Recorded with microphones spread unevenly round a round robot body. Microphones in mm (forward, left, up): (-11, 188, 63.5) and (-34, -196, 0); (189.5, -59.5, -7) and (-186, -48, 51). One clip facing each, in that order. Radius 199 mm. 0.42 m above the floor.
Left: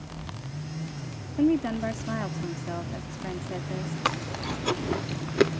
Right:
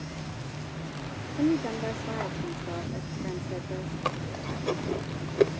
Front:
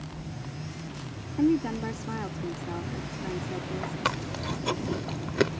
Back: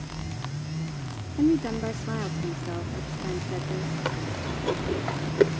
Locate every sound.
1.4 s a woman speaking: 55° left
4.0 s chewing: 40° left